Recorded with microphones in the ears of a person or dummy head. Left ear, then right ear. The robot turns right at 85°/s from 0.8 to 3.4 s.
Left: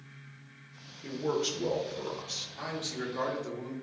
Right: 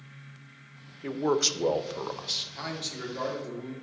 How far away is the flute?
I don't hear a flute.